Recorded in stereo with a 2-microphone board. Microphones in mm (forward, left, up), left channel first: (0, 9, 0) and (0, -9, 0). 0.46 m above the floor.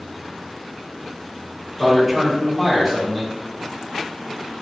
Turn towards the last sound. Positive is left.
turn(degrees=-15)  # may be behind; listen again after turning